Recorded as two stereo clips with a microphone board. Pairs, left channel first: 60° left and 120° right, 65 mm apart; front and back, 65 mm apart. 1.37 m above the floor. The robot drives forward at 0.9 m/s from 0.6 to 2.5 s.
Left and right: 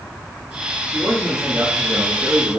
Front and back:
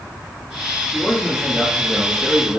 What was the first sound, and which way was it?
A man speaking, 65° right.